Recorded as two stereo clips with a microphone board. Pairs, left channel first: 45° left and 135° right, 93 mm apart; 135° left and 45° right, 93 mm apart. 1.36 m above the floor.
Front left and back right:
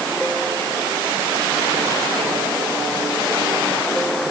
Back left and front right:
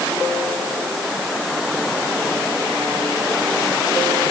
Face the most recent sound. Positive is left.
No sound to turn to.